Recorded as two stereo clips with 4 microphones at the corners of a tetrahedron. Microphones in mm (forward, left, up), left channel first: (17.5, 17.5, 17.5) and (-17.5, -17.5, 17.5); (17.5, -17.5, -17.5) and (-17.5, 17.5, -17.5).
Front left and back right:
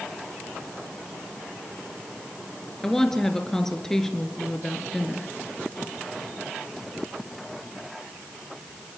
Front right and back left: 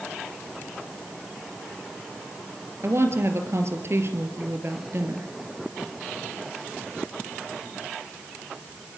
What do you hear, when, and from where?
2.8 s a woman speaking: 125° left, 3 m